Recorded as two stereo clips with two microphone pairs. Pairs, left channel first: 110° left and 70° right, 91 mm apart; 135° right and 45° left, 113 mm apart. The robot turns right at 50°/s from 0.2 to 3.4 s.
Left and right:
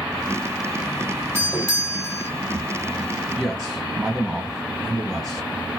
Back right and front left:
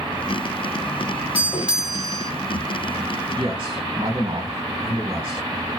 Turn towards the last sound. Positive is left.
turn(degrees=20)